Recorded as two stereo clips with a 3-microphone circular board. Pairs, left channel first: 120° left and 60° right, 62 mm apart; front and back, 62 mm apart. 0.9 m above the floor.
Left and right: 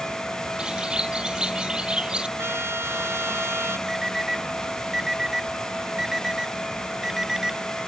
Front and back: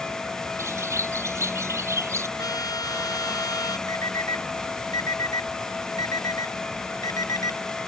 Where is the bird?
135° right.